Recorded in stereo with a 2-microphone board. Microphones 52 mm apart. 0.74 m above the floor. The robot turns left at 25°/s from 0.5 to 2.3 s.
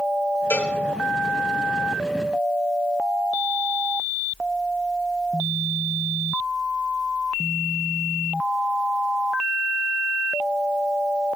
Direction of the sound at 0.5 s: 65° left (ahead or behind).